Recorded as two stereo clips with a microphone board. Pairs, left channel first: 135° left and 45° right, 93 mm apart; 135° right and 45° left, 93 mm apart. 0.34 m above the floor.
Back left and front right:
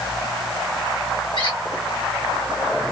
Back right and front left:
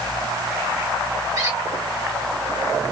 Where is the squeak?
100° left, 2 m.